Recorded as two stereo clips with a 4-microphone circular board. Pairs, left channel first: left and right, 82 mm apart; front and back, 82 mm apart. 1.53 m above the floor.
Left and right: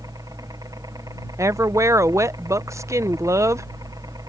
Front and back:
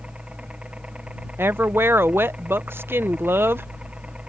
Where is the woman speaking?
130° right.